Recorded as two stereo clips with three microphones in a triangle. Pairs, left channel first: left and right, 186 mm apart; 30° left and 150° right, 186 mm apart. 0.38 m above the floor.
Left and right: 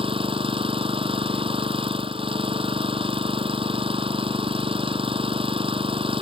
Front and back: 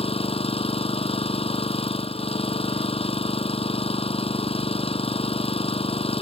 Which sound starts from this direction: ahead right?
An engine running, at 0.0 s.